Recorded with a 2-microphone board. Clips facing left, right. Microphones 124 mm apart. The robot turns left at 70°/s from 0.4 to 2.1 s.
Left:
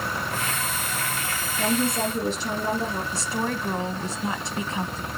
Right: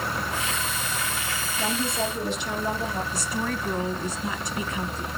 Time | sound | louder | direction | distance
1.6 | a woman speaking | left 4 dB | 75° left | 7.5 m
3.1 | a woman speaking | left 1 dB | 30° left (ahead or behind) | 1.4 m